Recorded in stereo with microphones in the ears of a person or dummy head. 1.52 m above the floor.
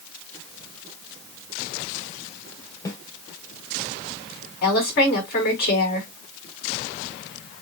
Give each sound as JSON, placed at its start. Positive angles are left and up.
{"t": 2.9, "sound": "a snare drum", "side_deg": 20, "distance_m": 3.5}
{"t": 4.6, "sound": "a woman speaking", "side_deg": 55, "distance_m": 4.0}